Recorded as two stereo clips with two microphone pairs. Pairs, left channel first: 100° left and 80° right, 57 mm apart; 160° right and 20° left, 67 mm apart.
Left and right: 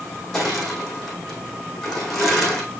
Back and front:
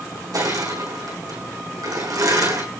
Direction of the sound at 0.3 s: 15° left.